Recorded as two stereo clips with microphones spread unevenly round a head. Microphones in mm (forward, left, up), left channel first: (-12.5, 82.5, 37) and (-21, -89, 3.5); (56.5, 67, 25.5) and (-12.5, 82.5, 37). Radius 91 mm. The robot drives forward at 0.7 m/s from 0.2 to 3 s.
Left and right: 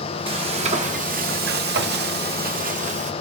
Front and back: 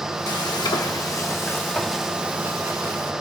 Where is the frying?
35° right, 1.4 m; by 3.1 s 135° right, 1.2 m.